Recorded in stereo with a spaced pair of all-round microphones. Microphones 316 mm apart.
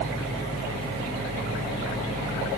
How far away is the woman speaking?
No woman speaking in this recording.